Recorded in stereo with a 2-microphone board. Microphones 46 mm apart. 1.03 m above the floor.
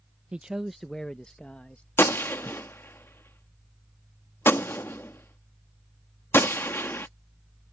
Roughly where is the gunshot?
Left.